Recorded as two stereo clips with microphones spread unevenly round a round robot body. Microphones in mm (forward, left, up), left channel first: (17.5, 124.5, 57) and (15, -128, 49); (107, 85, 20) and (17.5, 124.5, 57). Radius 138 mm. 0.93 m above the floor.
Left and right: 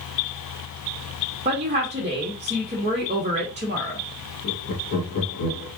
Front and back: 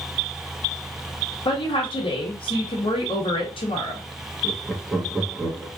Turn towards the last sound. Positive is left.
turn(degrees=65)